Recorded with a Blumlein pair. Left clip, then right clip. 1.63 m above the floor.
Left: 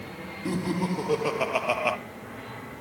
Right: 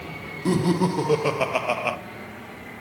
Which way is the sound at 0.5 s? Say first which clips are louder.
Right 7 dB; 20° right.